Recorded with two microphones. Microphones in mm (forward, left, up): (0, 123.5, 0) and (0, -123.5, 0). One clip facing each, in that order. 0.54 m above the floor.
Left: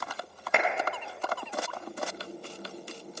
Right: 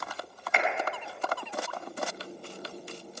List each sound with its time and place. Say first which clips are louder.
0.5 s a clap: left 3 dB; 65° left (ahead or behind), 2.0 m